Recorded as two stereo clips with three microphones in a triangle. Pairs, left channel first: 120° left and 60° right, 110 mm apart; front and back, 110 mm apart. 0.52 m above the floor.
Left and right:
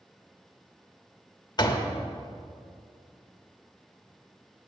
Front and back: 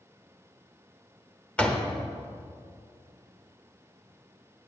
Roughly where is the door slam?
Left.